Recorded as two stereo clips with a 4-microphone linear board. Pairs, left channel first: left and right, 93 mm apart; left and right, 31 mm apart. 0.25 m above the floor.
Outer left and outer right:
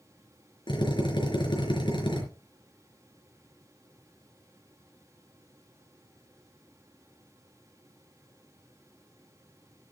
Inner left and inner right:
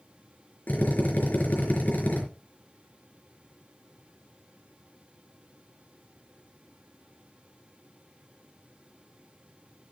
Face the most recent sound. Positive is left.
turn(degrees=60)  # may be behind; listen again after turning